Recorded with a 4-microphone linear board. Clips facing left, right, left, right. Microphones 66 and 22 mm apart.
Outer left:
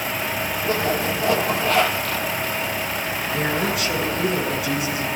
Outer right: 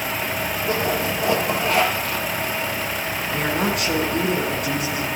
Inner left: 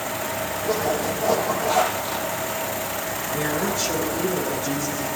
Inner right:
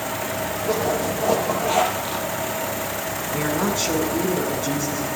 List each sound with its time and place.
0.6 s a zipper: 20° right (ahead or behind), 5 m
3.3 s a woman speaking: 50° right (ahead or behind), 7.5 m